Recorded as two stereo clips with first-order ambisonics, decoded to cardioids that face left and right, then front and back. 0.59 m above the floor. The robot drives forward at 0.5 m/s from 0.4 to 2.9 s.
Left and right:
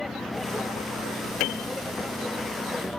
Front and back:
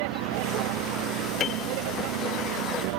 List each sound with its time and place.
0.0 s a vehicle: 170° left; by 3.0 s 175° left
1.4 s a piano: 60° left; by 1.7 s 65° left